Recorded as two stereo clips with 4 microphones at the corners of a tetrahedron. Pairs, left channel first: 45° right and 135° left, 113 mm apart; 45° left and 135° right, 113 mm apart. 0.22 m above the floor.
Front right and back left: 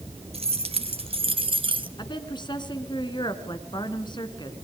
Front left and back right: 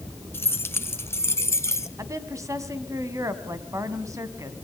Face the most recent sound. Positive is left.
turn(degrees=-80)